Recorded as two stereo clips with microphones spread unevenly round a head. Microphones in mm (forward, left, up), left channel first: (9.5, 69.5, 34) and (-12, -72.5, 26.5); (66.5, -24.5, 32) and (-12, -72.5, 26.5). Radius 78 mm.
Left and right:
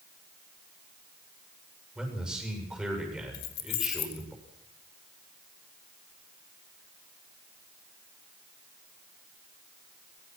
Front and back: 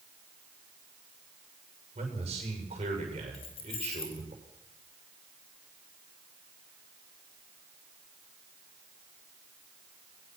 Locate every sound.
1.9 s a man speaking: 175° left, 7 m
3.3 s keys jangling: 75° left, 1.8 m